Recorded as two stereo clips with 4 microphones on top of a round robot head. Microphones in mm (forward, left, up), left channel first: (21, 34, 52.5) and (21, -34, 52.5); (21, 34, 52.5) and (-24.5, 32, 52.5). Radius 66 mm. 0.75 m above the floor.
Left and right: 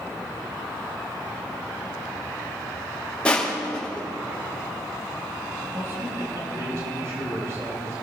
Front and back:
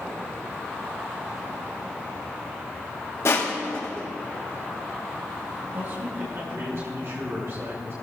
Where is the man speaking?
140° right, 4.5 m.